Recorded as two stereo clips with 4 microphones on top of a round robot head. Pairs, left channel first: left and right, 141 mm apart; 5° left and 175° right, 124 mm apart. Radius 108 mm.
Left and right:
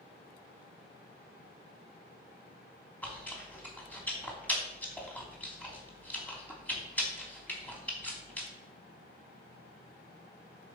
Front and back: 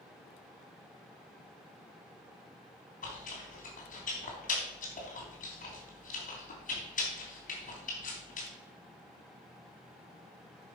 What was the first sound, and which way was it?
Chewing, 10° left.